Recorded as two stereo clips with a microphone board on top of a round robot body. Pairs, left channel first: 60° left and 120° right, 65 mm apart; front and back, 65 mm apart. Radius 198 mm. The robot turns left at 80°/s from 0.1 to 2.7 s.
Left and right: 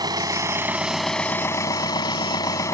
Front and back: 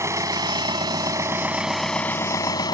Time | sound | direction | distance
0.0 | an engine running | 135° right | ?